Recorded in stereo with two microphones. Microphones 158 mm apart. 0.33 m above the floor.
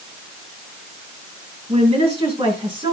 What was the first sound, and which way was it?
A woman speaking, 40° right (ahead or behind).